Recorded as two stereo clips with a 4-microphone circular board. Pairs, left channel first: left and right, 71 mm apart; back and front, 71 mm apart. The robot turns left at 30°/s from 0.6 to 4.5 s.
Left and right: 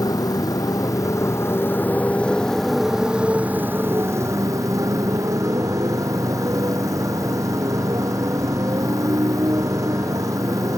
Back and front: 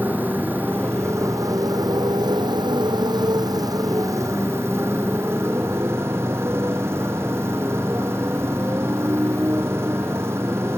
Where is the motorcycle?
65° left; by 10.8 s 50° right.